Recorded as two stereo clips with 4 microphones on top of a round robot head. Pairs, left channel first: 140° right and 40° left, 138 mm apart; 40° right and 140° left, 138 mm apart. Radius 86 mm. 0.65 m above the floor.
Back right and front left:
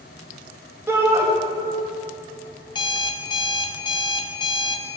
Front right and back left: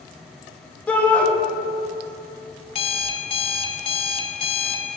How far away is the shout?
About 0.7 m.